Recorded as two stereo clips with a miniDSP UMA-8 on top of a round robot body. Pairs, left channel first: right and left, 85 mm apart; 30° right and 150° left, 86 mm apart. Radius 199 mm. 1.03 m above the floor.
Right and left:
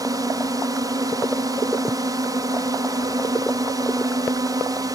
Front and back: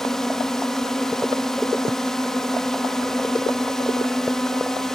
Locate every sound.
0.0 s a drone: 55° left